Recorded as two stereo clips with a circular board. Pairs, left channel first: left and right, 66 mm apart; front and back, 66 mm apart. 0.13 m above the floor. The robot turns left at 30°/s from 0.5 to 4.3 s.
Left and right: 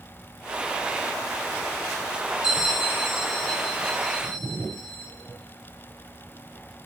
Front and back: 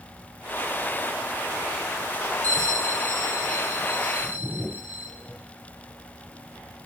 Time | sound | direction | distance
2.4 | a bell | 160° right | 1.5 m